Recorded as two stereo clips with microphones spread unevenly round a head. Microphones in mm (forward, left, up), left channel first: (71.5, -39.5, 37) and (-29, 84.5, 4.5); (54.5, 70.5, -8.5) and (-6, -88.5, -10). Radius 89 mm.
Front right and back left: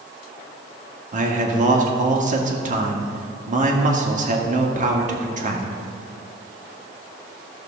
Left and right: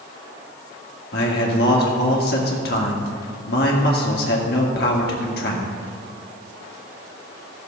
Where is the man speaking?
105° left, 1.7 m.